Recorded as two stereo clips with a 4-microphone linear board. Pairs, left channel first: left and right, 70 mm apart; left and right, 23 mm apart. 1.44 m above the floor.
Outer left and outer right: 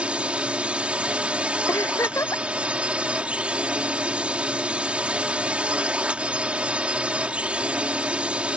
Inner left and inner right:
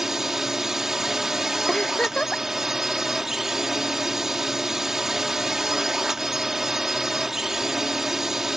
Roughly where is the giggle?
Left.